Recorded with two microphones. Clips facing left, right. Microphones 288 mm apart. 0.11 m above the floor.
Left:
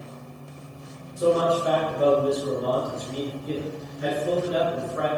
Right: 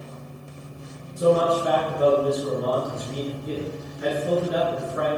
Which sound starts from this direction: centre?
A man speaking, at 1.2 s.